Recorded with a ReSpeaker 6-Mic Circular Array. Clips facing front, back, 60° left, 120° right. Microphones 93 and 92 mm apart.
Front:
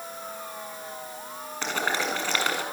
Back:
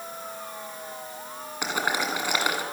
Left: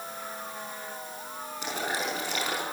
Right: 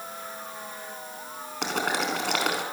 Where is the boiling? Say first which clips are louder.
Back 1 dB, right 5 dB; 100° right, 5 m.